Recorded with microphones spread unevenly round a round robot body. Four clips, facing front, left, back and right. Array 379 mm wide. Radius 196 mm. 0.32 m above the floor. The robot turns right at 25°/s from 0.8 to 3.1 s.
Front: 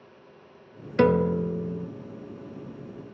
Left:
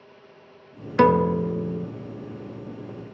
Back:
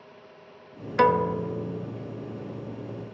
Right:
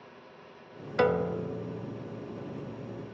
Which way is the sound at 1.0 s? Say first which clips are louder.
Left 8 dB, even; 45° left.